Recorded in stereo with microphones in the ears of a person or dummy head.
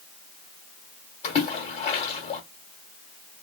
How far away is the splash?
About 1.3 m.